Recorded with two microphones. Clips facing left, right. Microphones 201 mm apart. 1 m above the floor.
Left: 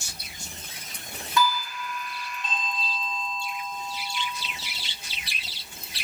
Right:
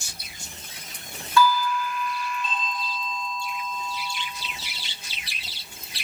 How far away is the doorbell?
About 9 m.